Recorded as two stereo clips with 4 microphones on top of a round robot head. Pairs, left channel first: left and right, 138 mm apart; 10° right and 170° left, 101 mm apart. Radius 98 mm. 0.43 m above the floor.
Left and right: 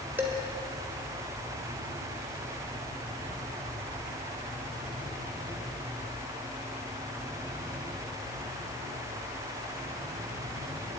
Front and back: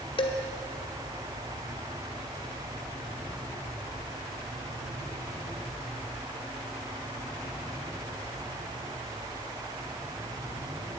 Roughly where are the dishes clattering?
Ahead.